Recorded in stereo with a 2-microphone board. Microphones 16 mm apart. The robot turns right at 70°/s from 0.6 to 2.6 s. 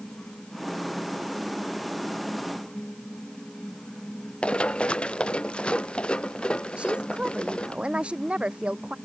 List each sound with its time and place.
4.4 s running footsteps: 80° left; by 7.8 s 65° left (ahead or behind)
6.8 s a woman speaking: 85° right